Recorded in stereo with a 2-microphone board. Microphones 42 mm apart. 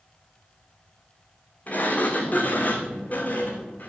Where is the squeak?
I don't hear a squeak.